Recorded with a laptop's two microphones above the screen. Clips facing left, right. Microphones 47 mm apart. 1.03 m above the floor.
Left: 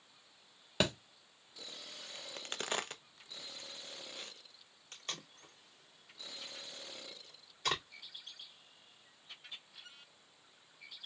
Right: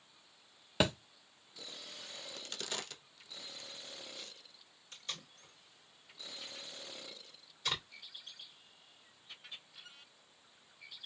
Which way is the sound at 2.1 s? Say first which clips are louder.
Left 4 dB; 30° left (ahead or behind).